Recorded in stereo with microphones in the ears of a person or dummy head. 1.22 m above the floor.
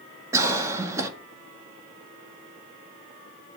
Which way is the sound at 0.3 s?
15° right (ahead or behind).